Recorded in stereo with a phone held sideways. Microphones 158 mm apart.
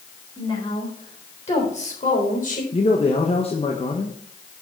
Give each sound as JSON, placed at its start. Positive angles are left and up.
{"t": 0.4, "sound": "a woman speaking", "side_deg": 30, "distance_m": 4.0}
{"t": 2.7, "sound": "a man speaking", "side_deg": 40, "distance_m": 1.1}